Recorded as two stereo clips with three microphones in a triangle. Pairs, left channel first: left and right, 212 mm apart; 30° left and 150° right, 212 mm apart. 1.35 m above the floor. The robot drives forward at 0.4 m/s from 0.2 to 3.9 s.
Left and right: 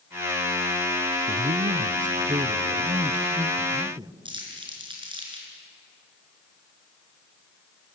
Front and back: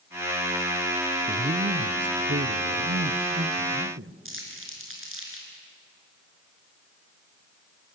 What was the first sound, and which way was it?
A man speaking, 110° right.